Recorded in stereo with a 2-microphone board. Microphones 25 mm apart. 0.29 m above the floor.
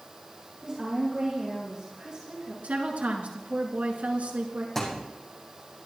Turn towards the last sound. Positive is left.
turn(degrees=15)  # may be behind; listen again after turning